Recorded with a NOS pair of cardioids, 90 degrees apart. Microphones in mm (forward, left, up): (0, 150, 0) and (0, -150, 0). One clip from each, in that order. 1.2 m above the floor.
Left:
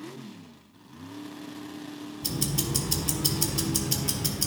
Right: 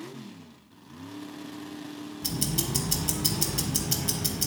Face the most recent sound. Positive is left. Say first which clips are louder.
# even
turn(degrees=5)